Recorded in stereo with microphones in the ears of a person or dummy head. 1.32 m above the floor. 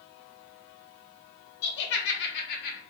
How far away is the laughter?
About 1.4 m.